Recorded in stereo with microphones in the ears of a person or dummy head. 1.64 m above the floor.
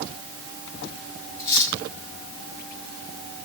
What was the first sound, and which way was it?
Cutlery clinking, 20° left (ahead or behind).